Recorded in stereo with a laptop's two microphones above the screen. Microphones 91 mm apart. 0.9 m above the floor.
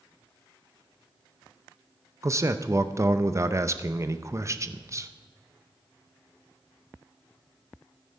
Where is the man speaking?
35° right (ahead or behind), 0.6 m.